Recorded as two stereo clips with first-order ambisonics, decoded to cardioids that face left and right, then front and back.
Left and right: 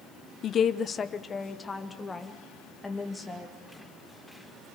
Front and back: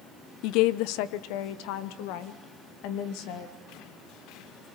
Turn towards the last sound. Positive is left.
turn(degrees=5)